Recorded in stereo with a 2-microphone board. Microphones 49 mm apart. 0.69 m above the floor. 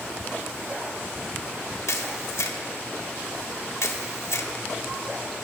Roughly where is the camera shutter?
Left.